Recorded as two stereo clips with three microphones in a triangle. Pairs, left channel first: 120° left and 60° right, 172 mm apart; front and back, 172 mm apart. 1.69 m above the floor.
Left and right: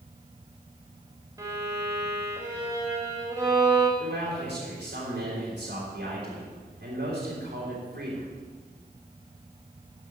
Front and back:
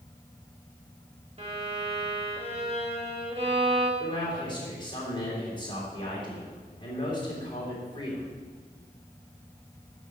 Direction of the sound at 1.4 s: 130° right.